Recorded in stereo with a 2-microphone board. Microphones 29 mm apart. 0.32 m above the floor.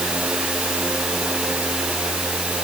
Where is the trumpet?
No trumpet in this recording.